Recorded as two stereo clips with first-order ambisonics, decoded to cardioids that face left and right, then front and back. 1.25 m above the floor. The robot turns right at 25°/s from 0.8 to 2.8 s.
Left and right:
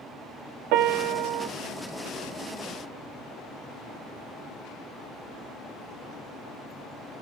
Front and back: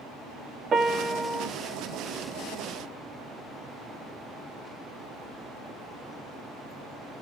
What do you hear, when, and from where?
0.7 s a piano: 115° right, 1.7 m; by 1.5 s 95° right, 1.7 m